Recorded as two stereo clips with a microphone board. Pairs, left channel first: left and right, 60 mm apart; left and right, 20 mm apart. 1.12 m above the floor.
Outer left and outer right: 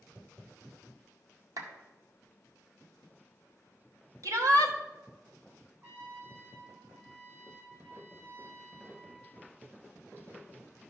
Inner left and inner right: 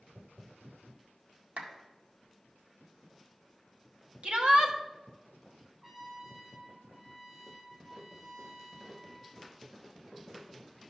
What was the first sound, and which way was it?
A clap, 75° right (ahead or behind).